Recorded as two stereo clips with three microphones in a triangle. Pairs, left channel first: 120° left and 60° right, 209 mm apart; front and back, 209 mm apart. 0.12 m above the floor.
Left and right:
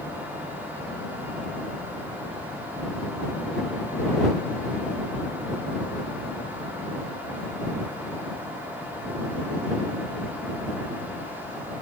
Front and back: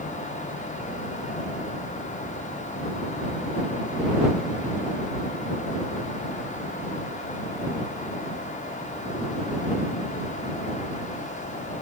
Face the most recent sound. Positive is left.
No sound to turn to.